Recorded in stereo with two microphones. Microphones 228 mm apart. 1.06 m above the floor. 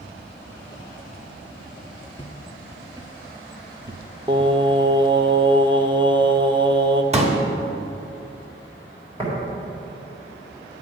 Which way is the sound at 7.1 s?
30° right (ahead or behind).